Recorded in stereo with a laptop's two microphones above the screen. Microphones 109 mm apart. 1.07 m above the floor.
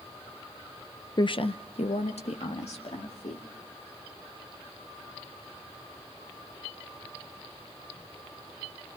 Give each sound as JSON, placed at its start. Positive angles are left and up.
{"t": 1.2, "sound": "a woman speaking", "side_deg": 40, "distance_m": 0.5}